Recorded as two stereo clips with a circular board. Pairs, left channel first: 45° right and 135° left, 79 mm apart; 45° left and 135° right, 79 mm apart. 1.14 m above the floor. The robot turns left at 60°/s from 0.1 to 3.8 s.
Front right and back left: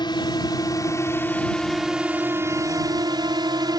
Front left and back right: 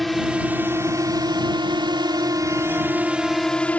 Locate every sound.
0.0 s a drone: 45° right; by 3.8 s 115° left